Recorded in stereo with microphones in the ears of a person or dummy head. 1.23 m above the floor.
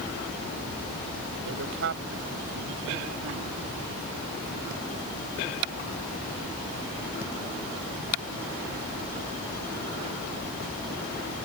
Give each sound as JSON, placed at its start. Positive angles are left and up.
{"t": 1.4, "sound": "a man speaking", "side_deg": -65}